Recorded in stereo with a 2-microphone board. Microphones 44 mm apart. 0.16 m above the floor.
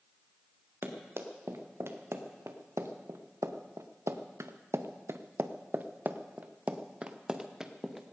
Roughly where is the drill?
I don't hear a drill.